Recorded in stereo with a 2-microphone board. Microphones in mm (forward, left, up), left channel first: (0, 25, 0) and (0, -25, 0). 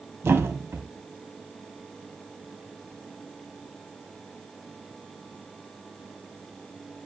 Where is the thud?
55° right (ahead or behind), 1.6 m.